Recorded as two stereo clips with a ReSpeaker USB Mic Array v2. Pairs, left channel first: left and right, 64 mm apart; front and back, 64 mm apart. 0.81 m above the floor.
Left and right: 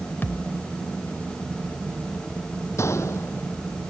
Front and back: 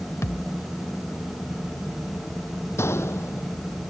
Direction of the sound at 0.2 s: 35° left.